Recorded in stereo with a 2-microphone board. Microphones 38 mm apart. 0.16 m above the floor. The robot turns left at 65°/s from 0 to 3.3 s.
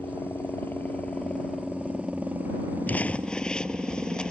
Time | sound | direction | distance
0.0 | a helicopter | 110° left | ?
2.9 | crumpling | 50° left (ahead or behind) | ?